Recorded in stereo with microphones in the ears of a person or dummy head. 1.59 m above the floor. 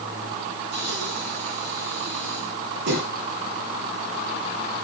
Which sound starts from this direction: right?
Breathing, at 0.7 s.